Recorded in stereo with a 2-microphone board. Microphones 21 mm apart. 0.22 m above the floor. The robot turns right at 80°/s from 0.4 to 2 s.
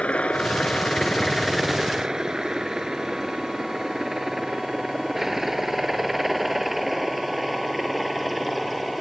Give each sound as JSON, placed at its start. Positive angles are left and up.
{"t": 0.0, "sound": "a helicopter", "side_deg": 65}